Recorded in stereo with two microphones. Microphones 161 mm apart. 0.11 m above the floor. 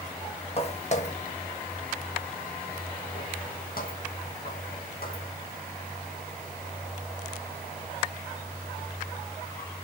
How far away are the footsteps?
About 1.8 m.